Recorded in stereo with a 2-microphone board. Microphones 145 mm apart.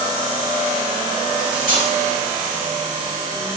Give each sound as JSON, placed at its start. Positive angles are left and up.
{"t": 1.4, "sound": "cutlery clinking", "side_deg": 75, "distance_m": 1.3}